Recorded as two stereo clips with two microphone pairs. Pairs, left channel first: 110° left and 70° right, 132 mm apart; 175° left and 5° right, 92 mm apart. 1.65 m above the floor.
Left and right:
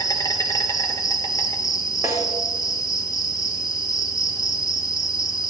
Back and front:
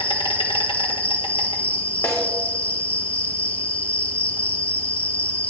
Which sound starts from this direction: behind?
An insect, at 0.0 s.